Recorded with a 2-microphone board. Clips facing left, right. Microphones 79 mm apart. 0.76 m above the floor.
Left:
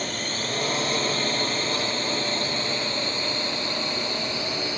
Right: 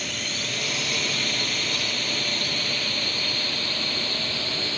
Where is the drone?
40° left (ahead or behind); by 4.8 s 15° left (ahead or behind).